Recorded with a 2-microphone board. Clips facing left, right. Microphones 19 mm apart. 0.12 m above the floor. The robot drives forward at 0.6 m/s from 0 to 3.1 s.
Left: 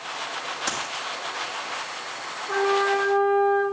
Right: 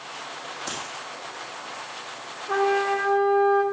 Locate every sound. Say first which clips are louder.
0.7 s a dropped coin: left 4 dB; 30° left (ahead or behind), 2.5 m
2.5 s a trumpet: even; 20° right (ahead or behind), 5.5 m